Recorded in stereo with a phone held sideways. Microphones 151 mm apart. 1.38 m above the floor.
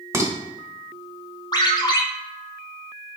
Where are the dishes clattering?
15° right (ahead or behind), 1.0 m.